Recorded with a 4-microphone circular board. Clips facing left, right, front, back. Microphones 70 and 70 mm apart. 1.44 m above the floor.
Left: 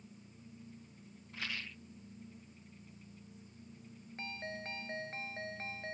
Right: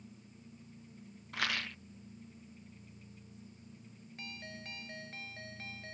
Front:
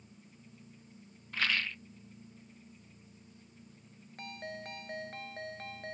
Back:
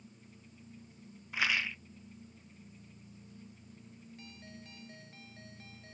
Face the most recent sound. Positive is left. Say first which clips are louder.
# left 5 dB, front 12 dB
turn(degrees=30)